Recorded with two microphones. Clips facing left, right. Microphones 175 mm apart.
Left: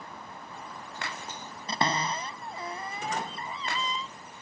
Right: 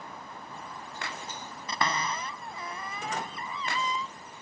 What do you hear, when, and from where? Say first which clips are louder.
1.7 s a cupboard door: left 2 dB; 25° left (ahead or behind)